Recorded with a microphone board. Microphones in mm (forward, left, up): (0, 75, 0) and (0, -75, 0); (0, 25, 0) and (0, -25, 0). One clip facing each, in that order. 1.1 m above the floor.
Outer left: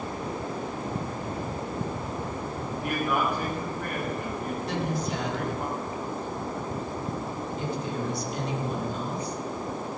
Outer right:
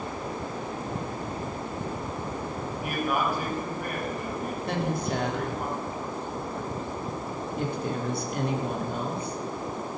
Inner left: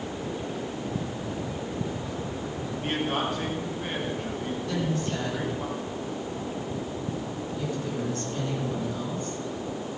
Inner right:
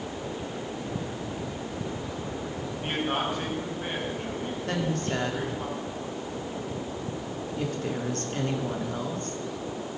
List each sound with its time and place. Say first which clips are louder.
2.8 s a man speaking: outer left 1 dB, even; 10° right (ahead or behind), 7.5 m
4.7 s a woman speaking: outer right 2 dB, inner right 1 dB; 55° right (ahead or behind), 2.5 m